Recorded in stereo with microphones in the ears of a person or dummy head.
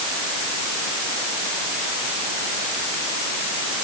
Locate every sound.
Only background noise.